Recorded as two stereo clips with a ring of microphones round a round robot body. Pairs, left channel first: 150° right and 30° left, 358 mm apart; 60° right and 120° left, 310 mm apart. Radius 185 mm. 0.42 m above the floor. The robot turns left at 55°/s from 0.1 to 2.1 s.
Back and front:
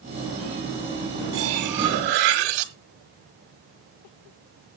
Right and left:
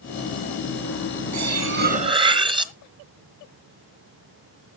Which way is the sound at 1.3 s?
85° left.